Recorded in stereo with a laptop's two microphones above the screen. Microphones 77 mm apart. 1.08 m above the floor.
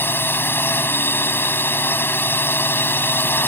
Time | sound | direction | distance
0.0 | a drone | 30° left (ahead or behind) | ?